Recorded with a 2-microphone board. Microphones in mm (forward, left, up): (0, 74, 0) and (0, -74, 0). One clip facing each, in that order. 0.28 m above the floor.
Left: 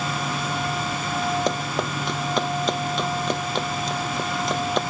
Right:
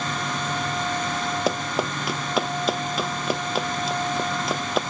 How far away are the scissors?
I don't hear scissors.